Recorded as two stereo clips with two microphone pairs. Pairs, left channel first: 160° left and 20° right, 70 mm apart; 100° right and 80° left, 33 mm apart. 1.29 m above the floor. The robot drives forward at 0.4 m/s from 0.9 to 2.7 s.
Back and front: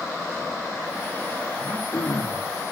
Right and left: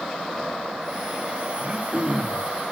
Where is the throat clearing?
120° left, 1.8 m; by 2.5 s 130° left, 2 m.